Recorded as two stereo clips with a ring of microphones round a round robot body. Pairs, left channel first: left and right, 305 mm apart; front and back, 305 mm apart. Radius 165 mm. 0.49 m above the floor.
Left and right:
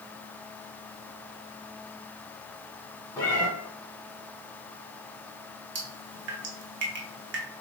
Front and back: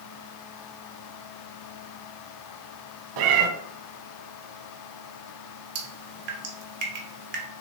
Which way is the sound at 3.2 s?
175° left.